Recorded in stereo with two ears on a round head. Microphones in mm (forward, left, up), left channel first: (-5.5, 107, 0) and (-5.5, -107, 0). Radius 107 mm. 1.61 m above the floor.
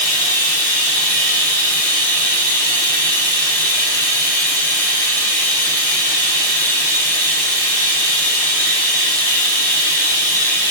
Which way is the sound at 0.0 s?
5° left (ahead or behind).